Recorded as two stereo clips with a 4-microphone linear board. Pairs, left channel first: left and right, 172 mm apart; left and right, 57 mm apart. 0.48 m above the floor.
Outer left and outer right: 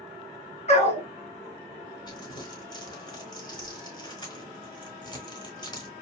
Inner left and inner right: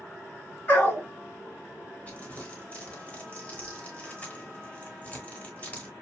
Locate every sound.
0.7 s a dog barking: 40° left (ahead or behind), 1.9 m
2.1 s crumpling: 25° left (ahead or behind), 3 m